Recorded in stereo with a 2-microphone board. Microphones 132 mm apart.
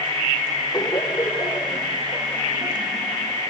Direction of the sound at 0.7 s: 35° left (ahead or behind).